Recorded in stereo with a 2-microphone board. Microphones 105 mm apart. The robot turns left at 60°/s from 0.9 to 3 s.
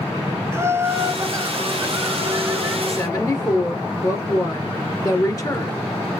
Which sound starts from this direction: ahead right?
Laughter, at 0.5 s.